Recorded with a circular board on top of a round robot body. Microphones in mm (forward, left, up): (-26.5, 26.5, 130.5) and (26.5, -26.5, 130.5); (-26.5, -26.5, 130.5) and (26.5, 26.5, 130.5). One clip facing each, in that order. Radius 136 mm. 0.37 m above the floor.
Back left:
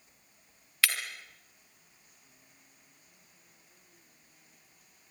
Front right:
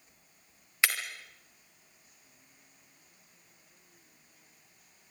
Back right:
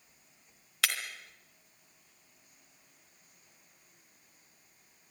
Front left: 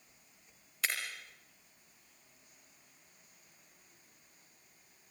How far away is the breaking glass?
About 3 m.